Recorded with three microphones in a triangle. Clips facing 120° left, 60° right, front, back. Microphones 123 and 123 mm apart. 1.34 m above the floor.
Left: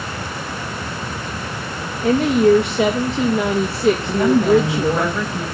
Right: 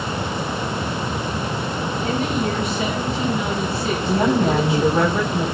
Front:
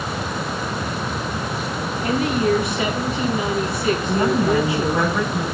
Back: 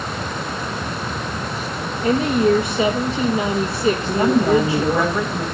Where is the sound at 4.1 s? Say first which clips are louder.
Left 1 dB, back 3 dB; 115° right, 8 m.